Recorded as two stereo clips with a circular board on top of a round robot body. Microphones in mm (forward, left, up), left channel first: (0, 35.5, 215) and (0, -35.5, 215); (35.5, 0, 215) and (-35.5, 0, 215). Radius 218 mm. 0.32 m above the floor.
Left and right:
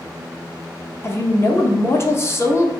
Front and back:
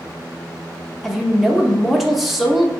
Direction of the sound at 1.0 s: 90° left.